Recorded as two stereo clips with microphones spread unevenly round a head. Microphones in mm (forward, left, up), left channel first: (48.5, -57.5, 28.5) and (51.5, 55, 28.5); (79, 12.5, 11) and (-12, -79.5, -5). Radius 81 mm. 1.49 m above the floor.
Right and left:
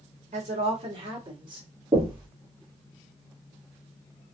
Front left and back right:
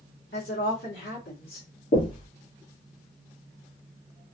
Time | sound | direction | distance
0.3 | a woman speaking | 65° left | 1.8 m
1.9 | knocking | 40° left | 1.9 m